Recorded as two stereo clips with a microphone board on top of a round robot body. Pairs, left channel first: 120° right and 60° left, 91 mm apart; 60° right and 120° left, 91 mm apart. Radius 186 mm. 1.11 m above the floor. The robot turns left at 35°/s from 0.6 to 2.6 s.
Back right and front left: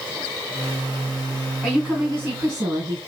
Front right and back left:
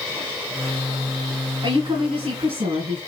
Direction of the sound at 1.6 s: 155° left.